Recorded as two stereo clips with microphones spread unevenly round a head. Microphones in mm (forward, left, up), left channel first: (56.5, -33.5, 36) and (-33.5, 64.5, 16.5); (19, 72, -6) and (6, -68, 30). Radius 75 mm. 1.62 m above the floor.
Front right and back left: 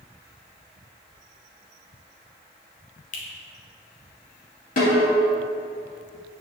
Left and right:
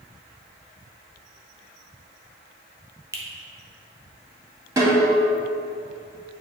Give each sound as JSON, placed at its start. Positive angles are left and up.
{"t": 3.1, "sound": "a finger snap", "azimuth_deg": -35, "distance_m": 1.2}
{"t": 4.8, "sound": "a snare drum", "azimuth_deg": -40, "distance_m": 2.5}